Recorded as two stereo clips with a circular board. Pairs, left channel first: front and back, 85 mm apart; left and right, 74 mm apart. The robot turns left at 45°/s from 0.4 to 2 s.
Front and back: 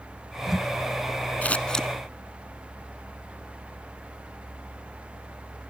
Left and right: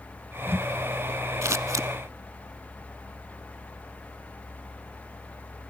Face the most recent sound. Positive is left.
turn(degrees=-90)